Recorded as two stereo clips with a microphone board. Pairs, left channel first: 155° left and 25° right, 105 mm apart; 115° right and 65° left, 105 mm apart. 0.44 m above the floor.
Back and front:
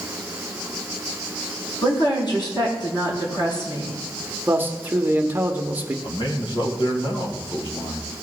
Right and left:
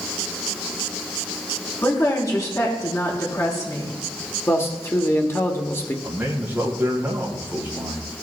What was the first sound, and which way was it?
A woman speaking, 165° right.